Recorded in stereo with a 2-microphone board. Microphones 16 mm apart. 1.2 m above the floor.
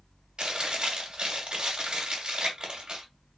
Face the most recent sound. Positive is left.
turn(degrees=-60)  # may be behind; listen again after turning